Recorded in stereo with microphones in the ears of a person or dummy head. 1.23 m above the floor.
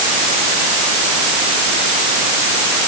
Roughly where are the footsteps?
I don't hear footsteps.